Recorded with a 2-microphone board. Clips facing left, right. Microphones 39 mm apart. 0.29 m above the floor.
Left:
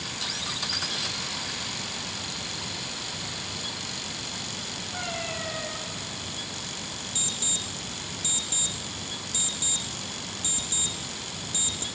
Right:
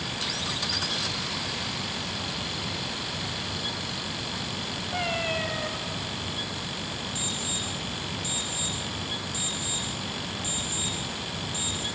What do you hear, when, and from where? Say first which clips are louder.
4.9 s a cat meowing: right 5 dB; 55° right (ahead or behind), 1.9 m
7.2 s an alarm clock: left 1 dB; 60° left (ahead or behind), 2.5 m